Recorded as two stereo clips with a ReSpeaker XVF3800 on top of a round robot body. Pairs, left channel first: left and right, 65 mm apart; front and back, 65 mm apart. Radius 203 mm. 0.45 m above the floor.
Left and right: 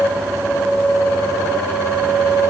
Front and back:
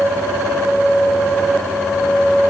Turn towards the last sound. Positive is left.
No sound to turn to.